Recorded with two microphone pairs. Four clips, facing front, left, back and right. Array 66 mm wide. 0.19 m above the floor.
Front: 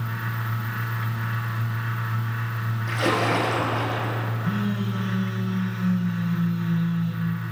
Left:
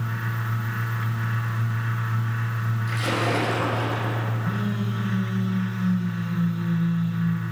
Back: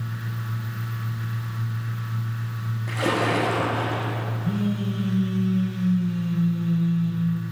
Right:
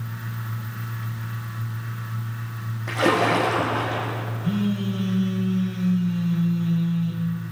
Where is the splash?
95° right, 4 m.